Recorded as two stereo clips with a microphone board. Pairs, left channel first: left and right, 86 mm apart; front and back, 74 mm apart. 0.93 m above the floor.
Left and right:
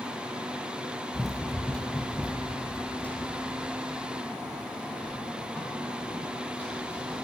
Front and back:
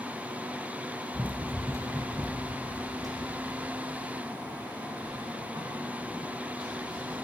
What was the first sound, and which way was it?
Running footsteps, straight behind.